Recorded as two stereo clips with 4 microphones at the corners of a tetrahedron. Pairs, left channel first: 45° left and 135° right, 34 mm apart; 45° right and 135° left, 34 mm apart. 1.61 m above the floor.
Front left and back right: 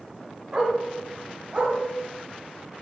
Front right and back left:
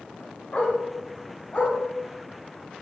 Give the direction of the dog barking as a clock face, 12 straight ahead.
3 o'clock.